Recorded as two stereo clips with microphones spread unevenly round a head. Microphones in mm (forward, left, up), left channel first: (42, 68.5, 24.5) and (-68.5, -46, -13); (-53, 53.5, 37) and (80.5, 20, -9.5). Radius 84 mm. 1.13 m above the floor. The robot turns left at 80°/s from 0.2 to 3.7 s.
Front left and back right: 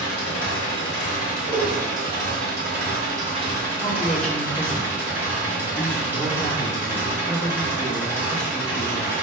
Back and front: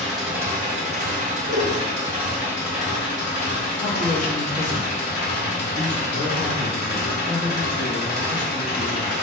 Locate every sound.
0.0 s an engine running: 70° left, 1.3 m; by 9.2 s 150° left, 1.3 m
1.5 s a whoosh: 25° right, 2 m; by 1.8 s 50° right, 2 m
3.8 s a man speaking: 145° left, 1.0 m